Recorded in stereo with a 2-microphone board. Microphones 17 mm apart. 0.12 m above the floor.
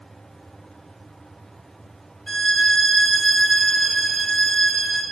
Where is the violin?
15° left (ahead or behind), 1.1 m.